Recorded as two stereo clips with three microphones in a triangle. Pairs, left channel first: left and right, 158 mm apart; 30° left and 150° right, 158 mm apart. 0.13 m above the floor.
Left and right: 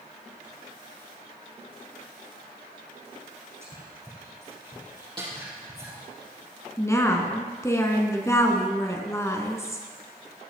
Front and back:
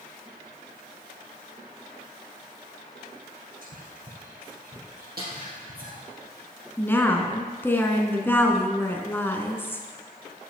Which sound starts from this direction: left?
A woman speaking, at 6.8 s.